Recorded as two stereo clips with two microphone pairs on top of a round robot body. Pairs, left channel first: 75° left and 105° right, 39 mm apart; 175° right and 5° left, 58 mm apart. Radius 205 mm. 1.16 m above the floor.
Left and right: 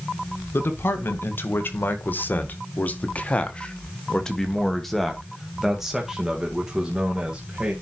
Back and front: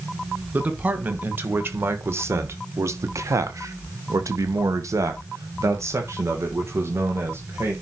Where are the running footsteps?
No running footsteps in this recording.